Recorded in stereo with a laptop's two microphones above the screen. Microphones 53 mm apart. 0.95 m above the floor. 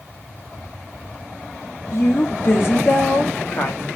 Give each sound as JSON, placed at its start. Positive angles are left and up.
{"t": 1.9, "sound": "a woman speaking", "side_deg": 50, "distance_m": 1.9}